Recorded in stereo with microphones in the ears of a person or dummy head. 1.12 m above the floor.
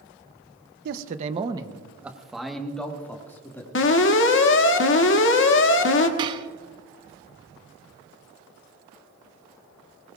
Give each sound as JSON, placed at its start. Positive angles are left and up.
{"t": 0.8, "sound": "a man speaking", "side_deg": -50, "distance_m": 1.0}
{"t": 3.8, "sound": "an alarm", "side_deg": 55, "distance_m": 1.6}
{"t": 6.2, "sound": "dishes clattering", "side_deg": -25, "distance_m": 0.9}